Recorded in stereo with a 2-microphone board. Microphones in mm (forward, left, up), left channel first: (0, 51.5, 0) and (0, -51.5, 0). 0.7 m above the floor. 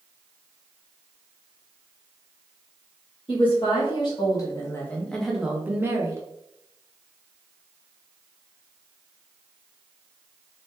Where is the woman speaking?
60° left (ahead or behind), 1.1 m; by 6.2 s 30° right (ahead or behind), 0.9 m.